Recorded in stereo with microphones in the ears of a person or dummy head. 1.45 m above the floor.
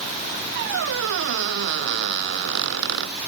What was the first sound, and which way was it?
A squeak, 60° right (ahead or behind).